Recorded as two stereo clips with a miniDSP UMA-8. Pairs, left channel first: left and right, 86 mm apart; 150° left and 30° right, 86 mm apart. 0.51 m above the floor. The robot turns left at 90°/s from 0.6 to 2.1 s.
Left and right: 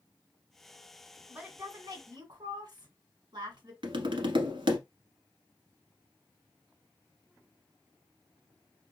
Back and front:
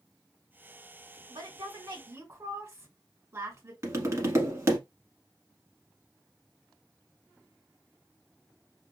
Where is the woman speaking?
10° right, 1.8 m; by 3.7 s 85° right, 1.8 m.